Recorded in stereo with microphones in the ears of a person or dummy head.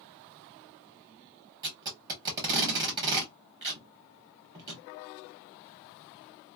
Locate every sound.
1.6 s tape being pulled: 25° right (ahead or behind), 1.3 m